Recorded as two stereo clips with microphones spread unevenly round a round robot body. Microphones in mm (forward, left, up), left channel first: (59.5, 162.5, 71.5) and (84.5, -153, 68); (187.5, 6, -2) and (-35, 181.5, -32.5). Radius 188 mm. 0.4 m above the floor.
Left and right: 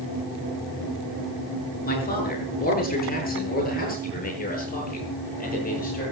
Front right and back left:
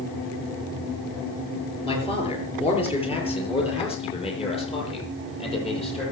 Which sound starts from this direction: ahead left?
A man speaking, at 1.8 s.